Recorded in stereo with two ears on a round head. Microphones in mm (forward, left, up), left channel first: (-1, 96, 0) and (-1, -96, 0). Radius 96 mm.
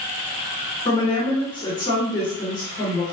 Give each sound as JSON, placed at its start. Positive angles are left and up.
{"t": 0.8, "sound": "a woman speaking", "side_deg": 25, "distance_m": 1.8}